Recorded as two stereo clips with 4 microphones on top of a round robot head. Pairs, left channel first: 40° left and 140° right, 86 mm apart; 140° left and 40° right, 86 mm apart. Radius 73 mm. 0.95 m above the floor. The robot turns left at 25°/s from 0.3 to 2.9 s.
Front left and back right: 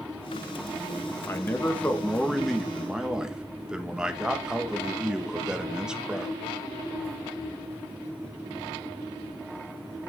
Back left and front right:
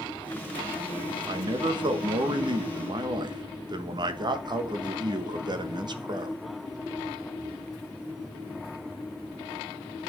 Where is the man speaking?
20° right, 1.4 m; by 6.4 s 60° right, 1.4 m.